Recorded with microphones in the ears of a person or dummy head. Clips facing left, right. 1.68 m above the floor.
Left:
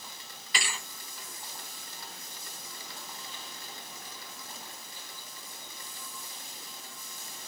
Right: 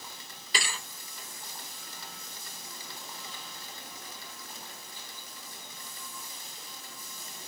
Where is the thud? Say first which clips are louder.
Right 1 dB; 30° right (ahead or behind), 2.5 m.